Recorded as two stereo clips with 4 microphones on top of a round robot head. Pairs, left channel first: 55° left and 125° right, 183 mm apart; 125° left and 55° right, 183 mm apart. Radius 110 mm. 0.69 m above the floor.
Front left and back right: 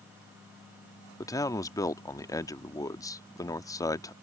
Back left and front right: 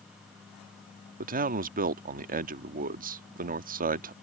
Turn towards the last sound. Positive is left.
turn(degrees=-15)